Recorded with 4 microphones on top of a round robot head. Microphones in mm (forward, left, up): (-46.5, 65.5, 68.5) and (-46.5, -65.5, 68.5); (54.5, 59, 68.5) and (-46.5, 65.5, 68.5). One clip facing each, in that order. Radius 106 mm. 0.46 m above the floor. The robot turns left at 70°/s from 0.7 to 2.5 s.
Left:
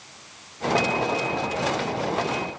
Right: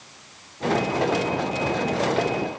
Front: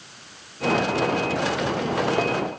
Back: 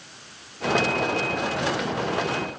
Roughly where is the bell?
I don't hear a bell.